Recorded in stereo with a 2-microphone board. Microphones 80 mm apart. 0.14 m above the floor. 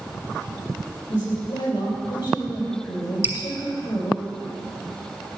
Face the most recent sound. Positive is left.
turn(degrees=-25)  # may be behind; listen again after turning